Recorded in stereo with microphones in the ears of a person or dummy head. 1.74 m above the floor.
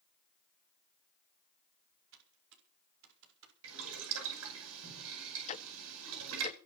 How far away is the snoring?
I don't hear snoring.